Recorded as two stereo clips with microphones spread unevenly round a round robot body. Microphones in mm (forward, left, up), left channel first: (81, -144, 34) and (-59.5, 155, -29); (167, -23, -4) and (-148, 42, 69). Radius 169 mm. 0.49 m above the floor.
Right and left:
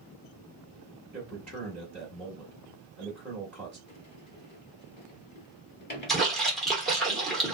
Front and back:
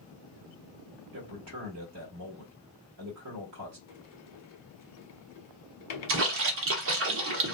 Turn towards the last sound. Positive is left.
turn(degrees=-175)